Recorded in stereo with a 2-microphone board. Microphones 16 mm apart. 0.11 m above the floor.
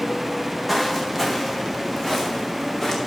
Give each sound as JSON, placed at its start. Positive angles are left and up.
{"t": 0.7, "sound": "footsteps", "side_deg": 10, "distance_m": 1.8}